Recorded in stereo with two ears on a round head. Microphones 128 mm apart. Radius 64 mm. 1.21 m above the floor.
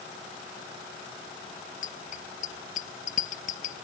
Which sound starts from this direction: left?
A bicycle bell, at 1.8 s.